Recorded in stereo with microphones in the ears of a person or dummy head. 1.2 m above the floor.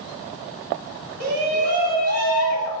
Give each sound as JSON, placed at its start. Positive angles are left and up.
{"t": 1.2, "sound": "a shout", "side_deg": -50, "distance_m": 1.5}